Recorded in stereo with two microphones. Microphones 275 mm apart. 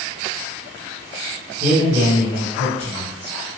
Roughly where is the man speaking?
Right.